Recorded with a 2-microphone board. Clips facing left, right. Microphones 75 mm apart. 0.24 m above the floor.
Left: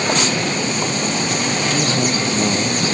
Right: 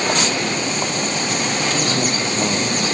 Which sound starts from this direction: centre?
A man speaking, at 1.7 s.